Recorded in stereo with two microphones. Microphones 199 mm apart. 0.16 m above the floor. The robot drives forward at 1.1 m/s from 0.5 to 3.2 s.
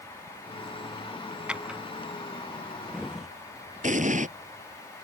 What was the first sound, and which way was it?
A drawer, 5° right (ahead or behind).